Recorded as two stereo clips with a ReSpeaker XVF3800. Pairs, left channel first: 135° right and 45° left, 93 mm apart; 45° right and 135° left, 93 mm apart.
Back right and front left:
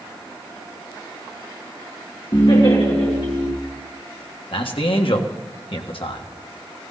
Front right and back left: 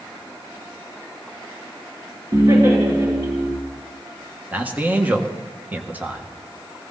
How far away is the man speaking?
About 1.5 m.